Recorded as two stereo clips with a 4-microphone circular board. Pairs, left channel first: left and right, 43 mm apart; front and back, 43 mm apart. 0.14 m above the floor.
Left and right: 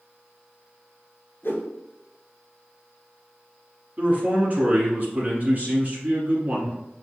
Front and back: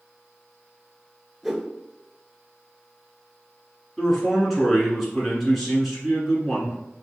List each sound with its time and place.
1.4 s a whoosh: 90° left, 0.7 m
4.0 s a man speaking: 90° right, 1.3 m